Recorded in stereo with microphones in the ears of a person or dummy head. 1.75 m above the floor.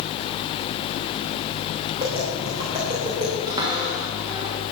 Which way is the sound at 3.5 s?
25° right (ahead or behind).